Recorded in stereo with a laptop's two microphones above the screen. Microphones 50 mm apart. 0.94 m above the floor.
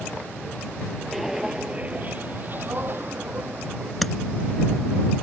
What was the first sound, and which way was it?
Footsteps, centre (ahead or behind).